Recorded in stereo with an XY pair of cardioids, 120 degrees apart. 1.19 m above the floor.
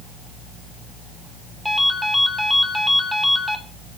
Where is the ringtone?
Straight ahead, 3 m.